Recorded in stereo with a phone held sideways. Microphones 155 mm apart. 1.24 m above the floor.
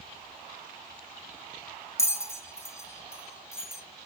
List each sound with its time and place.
2.0 s a bell: 15° left (ahead or behind), 1.2 m